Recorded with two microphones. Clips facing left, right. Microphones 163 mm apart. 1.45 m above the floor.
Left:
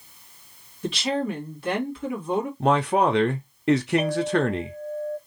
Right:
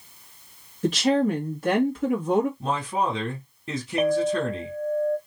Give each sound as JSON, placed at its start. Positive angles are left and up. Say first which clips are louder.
{"t": 0.8, "sound": "a woman speaking", "louder": "right 5 dB", "side_deg": -45, "distance_m": 1.6}
{"t": 2.6, "sound": "a man speaking", "louder": "left 6 dB", "side_deg": 80, "distance_m": 0.6}
{"t": 4.0, "sound": "a clink", "louder": "right 1 dB", "side_deg": -60, "distance_m": 1.3}